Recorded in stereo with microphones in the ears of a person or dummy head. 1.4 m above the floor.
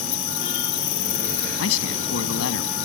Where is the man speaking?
85° left.